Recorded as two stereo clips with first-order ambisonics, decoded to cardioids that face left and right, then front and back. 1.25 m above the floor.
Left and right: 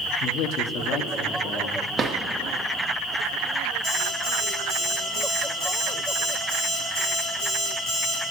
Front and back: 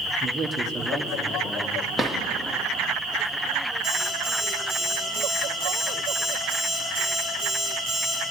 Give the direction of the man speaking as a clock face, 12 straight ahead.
8 o'clock.